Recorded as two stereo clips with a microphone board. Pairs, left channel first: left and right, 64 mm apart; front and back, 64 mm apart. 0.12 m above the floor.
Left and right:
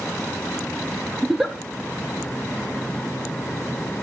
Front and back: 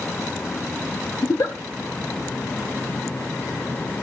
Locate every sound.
1.2 s a giggle: straight ahead, 1.2 m